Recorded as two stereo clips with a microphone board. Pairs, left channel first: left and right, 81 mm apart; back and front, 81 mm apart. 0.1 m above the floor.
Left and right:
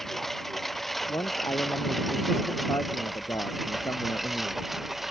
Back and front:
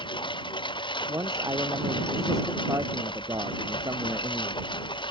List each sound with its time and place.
0.0 s a lawn mower: straight behind; by 5.1 s 175° right
1.1 s a man speaking: 45° left